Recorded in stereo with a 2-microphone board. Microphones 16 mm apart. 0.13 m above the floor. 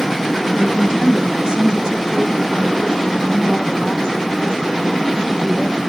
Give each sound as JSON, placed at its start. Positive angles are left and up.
{"t": 0.6, "sound": "a woman speaking", "side_deg": -40, "distance_m": 2.0}